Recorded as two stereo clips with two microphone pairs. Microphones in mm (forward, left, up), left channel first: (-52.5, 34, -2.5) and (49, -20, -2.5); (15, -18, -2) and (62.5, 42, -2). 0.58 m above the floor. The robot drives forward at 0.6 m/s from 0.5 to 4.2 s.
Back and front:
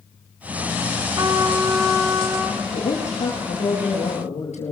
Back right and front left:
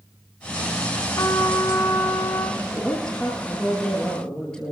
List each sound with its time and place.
1.2 s a trumpet: 85° right, 3.5 m; by 2.5 s 95° right, 3.5 m
2.6 s a woman speaking: 150° left, 9.5 m; by 4.7 s 155° left, 10 m